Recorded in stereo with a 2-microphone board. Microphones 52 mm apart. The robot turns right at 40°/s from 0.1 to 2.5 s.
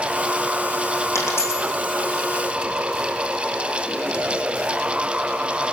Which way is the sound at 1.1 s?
65° left (ahead or behind).